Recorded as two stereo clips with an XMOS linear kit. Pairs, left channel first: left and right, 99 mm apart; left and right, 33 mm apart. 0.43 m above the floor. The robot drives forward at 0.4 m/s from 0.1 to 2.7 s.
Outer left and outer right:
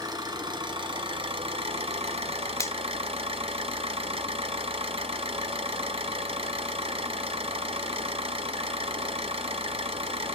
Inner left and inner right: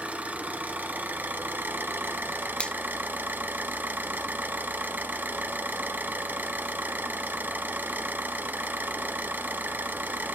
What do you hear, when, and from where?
0.0 s an engine running: 45° right (ahead or behind), 1.2 m; by 10.4 s 75° right (ahead or behind), 0.8 m
2.6 s a finger snap: 30° left (ahead or behind), 0.6 m